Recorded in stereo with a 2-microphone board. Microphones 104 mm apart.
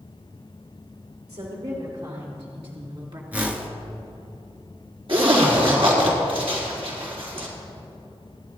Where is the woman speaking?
70° right (ahead or behind), 4 m; by 3.2 s 50° right (ahead or behind), 2.5 m.